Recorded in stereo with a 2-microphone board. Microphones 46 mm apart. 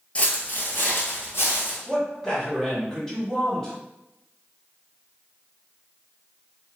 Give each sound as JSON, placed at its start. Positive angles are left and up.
{"t": 0.1, "sound": "footsteps", "side_deg": 30, "distance_m": 0.6}
{"t": 1.9, "sound": "a man speaking", "side_deg": 15, "distance_m": 1.4}